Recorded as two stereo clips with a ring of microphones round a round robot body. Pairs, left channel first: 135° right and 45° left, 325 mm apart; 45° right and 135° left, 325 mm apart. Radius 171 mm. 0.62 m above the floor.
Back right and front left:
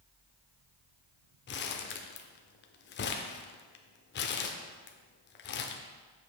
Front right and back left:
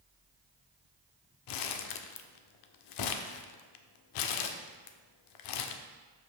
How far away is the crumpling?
About 0.5 m.